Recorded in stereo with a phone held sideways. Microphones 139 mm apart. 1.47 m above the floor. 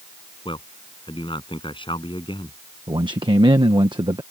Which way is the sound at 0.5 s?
35° left (ahead or behind).